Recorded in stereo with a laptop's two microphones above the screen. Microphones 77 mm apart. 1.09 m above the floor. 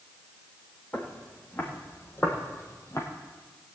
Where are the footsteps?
20° left (ahead or behind), 4 m; by 3.1 s 40° left (ahead or behind), 2.5 m.